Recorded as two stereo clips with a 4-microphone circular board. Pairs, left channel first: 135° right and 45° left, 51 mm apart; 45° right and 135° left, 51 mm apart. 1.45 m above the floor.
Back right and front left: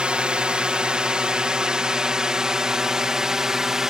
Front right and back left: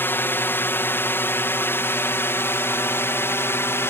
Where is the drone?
20° right; by 3.9 s 30° right.